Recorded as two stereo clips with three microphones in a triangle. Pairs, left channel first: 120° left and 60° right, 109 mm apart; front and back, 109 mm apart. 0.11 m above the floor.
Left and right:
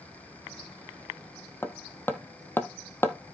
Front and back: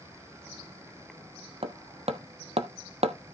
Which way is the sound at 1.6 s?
170° right.